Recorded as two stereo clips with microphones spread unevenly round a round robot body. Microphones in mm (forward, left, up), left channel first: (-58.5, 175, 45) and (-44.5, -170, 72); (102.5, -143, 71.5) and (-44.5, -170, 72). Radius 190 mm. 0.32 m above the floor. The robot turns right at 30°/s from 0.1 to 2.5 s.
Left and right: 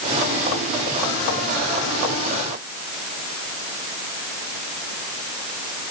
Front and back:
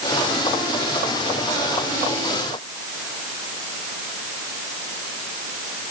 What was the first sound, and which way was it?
Only background noise.